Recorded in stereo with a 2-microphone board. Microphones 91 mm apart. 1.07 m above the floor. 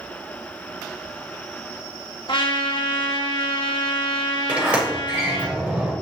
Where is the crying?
I don't hear crying.